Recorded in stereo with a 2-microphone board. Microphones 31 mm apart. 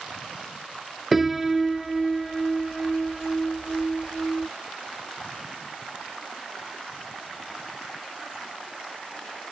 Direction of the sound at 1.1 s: 10° right (ahead or behind).